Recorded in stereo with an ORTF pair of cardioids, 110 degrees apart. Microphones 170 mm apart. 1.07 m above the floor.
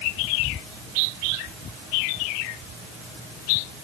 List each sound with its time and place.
Only background noise.